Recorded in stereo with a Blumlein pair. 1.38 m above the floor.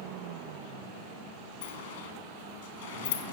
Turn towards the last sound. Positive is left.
turn(degrees=60)